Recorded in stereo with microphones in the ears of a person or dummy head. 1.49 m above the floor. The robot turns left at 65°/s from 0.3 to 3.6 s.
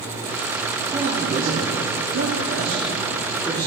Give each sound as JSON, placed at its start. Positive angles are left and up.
{"t": 0.9, "sound": "a man speaking", "azimuth_deg": -20, "distance_m": 4.0}